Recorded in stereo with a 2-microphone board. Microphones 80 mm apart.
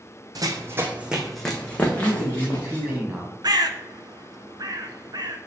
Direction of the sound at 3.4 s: 60° right (ahead or behind).